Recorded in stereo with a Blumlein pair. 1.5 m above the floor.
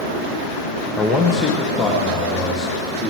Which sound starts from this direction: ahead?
A man speaking, at 1.0 s.